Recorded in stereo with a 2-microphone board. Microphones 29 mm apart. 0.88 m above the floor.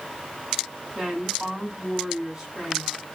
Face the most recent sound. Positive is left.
turn(degrees=-15)  # may be behind; listen again after turning